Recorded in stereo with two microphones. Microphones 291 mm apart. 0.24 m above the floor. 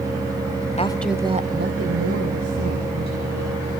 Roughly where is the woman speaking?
Left.